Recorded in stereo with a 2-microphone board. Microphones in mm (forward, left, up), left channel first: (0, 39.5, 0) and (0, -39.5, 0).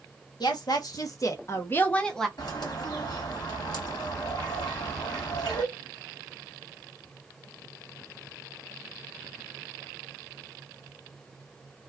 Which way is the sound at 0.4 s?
65° left (ahead or behind).